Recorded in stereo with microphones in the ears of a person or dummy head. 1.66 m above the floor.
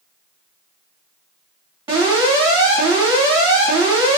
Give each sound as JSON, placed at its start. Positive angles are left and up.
{"t": 1.9, "sound": "an alarm", "side_deg": -25, "distance_m": 1.5}